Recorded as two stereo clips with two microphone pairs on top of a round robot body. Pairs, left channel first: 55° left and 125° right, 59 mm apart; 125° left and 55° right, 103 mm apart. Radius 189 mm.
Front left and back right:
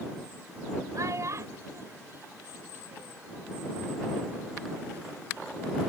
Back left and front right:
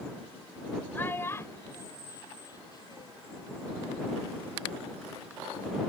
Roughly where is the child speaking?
Behind.